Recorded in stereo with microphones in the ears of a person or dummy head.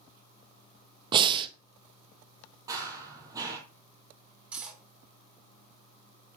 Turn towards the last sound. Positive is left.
turn(degrees=-10)  # may be behind; listen again after turning